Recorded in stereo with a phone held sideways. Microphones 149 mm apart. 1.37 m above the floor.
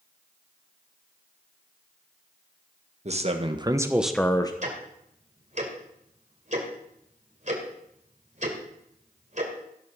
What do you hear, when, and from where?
3.0 s a man speaking: 50° right (ahead or behind), 1.6 m; by 4.5 s 30° left (ahead or behind), 1.0 m
4.6 s ticking: 55° right (ahead or behind), 2.5 m